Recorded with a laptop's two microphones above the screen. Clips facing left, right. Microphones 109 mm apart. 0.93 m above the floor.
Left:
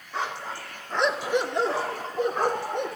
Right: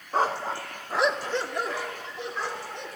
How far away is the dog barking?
About 0.7 m.